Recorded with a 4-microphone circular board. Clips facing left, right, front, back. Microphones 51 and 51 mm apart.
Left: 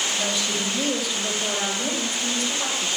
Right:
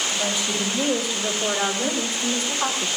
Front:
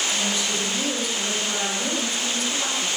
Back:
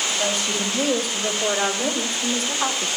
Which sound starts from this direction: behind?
A woman speaking, at 0.1 s.